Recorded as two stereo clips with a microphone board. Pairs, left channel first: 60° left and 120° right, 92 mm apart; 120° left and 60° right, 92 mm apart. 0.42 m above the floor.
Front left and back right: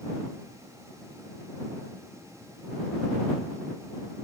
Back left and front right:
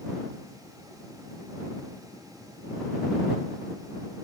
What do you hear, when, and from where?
Only background noise.